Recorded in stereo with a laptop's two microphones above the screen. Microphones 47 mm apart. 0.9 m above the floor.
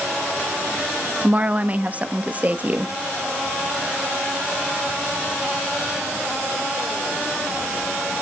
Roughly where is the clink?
I don't hear a clink.